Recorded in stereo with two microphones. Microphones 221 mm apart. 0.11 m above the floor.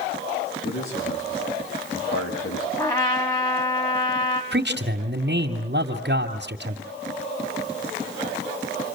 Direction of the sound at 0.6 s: 75° left (ahead or behind).